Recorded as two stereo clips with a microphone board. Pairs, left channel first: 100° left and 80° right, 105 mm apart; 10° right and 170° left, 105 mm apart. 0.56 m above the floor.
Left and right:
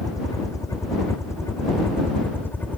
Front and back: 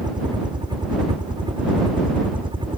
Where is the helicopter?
140° left; by 2.8 s 170° left.